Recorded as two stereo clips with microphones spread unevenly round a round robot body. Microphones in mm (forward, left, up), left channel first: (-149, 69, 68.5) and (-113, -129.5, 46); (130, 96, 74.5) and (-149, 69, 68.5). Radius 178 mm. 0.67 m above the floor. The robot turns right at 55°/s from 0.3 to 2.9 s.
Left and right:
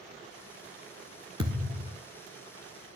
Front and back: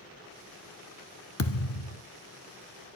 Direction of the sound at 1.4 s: 5° right.